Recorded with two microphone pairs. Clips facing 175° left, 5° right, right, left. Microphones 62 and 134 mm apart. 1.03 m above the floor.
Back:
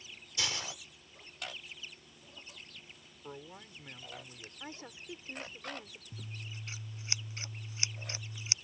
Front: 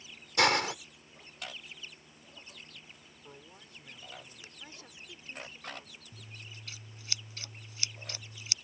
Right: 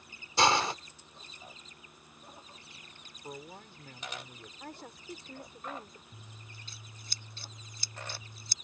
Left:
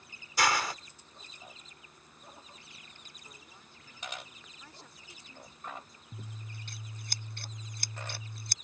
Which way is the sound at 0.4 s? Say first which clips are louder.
Front 12 dB, right 3 dB; 30° right.